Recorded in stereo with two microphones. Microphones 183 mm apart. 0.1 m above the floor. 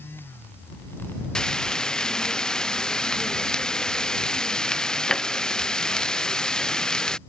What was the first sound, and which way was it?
Frying, 5° left (ahead or behind).